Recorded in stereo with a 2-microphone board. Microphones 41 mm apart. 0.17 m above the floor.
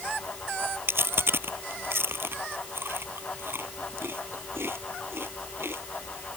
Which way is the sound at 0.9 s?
65° right (ahead or behind).